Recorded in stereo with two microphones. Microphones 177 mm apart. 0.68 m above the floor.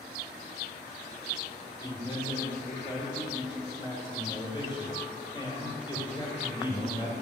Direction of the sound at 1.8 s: 30° left (ahead or behind).